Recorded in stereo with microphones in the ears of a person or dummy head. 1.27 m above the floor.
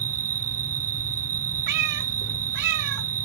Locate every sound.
0.0 s an insect: 80° right
1.7 s a cat meowing: 60° right (ahead or behind)